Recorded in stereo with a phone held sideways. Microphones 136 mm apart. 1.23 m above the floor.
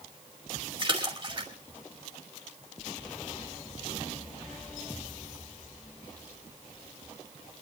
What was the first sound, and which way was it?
A splash, 35° right (ahead or behind).